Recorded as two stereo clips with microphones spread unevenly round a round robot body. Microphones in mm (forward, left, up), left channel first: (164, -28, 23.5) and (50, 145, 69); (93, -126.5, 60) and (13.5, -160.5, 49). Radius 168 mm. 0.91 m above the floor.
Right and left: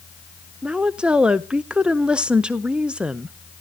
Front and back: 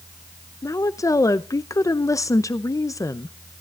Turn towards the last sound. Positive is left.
turn(degrees=20)